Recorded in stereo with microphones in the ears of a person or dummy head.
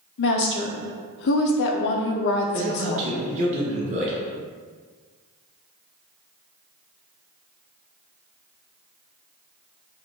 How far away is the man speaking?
About 0.8 m.